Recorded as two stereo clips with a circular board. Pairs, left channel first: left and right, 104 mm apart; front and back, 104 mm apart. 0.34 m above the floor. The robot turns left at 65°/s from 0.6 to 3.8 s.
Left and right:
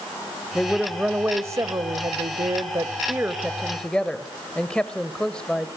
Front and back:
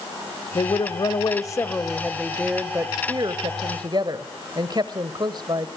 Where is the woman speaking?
15° left, 1.2 m; by 5.7 s 165° left, 1.2 m.